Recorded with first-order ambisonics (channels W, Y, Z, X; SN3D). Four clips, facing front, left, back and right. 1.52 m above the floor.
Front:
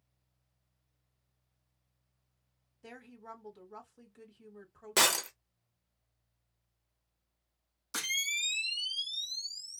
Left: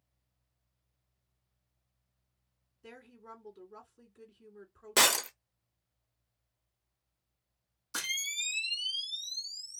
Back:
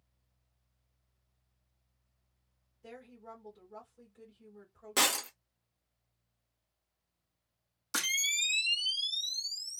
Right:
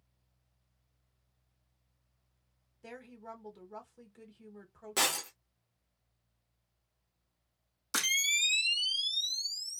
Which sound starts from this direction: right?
A camera shutter, at 7.9 s.